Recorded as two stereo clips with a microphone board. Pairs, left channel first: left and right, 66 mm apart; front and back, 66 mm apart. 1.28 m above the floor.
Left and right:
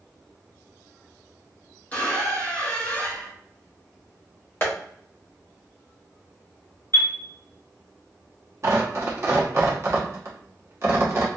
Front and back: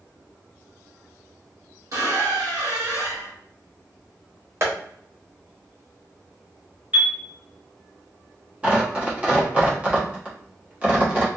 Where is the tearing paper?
115° right, 0.9 m.